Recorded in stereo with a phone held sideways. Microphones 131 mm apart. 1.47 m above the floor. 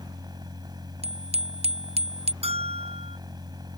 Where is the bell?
50° right (ahead or behind).